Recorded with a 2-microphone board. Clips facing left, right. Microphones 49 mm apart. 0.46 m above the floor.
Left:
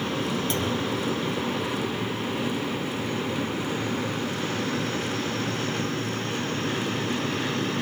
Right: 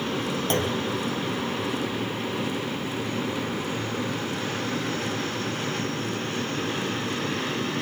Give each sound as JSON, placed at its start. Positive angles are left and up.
{"t": 0.5, "sound": "a clunk", "side_deg": -45, "distance_m": 4.5}